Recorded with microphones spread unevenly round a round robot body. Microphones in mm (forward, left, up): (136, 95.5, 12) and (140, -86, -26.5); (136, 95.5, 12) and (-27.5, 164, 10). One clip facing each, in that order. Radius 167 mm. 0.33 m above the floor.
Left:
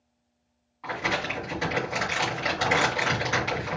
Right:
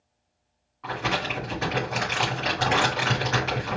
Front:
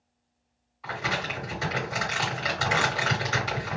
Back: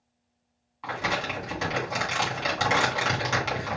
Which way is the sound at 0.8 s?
175° left.